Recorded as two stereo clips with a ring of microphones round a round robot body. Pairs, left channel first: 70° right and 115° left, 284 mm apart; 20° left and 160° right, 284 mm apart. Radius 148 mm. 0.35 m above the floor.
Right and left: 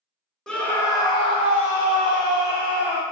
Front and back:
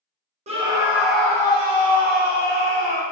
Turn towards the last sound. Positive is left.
turn(degrees=-15)